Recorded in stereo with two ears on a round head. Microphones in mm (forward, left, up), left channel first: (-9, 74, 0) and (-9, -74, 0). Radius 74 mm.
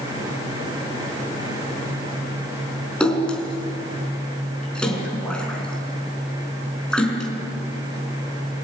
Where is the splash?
5° left (ahead or behind), 4.5 m.